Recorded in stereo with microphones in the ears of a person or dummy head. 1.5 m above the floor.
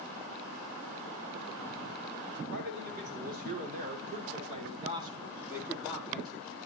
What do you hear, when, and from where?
2.5 s a man speaking: 60° right (ahead or behind), 4.5 m; by 6.7 s 10° left (ahead or behind), 3 m